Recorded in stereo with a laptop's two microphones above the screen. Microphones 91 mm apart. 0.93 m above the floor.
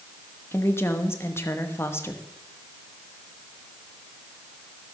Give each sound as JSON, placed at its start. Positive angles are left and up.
{"t": 0.5, "sound": "a woman speaking", "side_deg": 30, "distance_m": 1.1}